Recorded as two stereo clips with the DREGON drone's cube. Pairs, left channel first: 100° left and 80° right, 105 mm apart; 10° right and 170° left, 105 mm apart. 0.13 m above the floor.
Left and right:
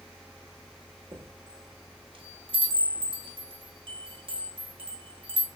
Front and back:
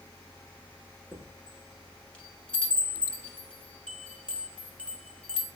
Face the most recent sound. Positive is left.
turn(degrees=-90)